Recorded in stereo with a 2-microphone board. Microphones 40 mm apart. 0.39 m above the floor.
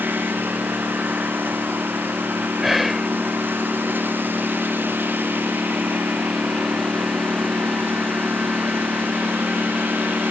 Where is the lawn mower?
60° right (ahead or behind).